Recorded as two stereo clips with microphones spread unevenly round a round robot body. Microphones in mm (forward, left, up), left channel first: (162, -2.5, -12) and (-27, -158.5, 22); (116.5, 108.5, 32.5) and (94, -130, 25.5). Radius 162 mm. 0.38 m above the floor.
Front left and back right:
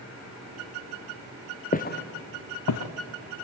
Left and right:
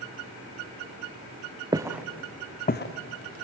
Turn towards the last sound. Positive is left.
turn(degrees=65)